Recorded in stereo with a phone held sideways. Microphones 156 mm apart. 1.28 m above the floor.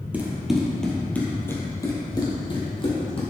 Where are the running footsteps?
10° right (ahead or behind), 2 m; by 3.2 s 35° left (ahead or behind), 3 m.